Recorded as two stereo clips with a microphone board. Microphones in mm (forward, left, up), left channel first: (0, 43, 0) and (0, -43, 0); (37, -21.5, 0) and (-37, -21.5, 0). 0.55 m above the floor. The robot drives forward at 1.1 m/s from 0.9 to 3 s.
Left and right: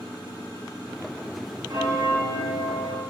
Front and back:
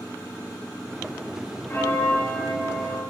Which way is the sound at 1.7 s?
60° right.